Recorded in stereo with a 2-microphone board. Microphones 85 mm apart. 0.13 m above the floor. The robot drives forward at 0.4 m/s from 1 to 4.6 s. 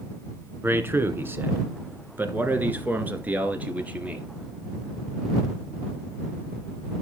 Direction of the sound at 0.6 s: 30° right (ahead or behind).